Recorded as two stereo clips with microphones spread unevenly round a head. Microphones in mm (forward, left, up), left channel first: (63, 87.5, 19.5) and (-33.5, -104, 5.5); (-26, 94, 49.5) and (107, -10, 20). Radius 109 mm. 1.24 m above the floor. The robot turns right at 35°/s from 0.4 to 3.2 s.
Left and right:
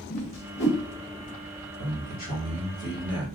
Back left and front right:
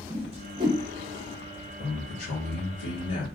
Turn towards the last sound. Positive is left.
turn(degrees=150)